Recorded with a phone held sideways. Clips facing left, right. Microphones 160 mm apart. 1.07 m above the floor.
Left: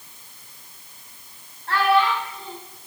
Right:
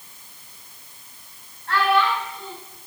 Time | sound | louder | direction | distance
1.7 | a child speaking | left 1 dB | 35° left (ahead or behind) | 6 m